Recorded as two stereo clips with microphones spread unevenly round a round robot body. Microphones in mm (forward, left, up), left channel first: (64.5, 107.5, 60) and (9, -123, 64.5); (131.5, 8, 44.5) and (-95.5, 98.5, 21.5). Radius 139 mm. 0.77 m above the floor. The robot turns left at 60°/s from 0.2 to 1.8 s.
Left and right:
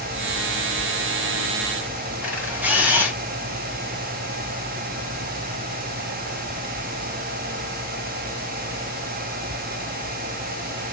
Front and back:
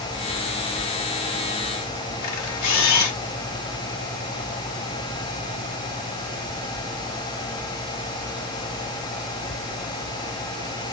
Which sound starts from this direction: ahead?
A camera shutter, at 2.2 s.